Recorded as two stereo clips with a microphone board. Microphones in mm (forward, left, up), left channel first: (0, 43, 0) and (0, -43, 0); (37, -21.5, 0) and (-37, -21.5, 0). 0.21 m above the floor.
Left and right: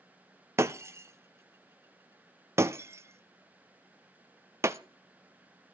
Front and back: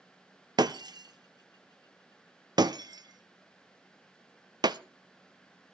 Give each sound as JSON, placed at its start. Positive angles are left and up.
{"t": 0.6, "sound": "breaking glass", "azimuth_deg": -150, "distance_m": 0.6}